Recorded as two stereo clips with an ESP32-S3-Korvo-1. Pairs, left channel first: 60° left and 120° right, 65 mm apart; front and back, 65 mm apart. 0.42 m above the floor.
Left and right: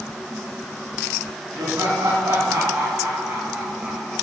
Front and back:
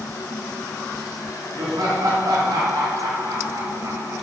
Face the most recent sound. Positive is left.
turn(degrees=150)